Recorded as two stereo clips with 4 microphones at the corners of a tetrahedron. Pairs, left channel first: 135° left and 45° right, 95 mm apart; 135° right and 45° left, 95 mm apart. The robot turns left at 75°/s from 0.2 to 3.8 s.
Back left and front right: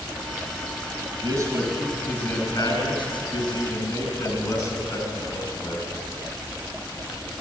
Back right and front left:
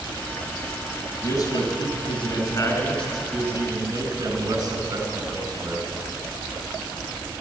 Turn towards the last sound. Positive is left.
turn(degrees=90)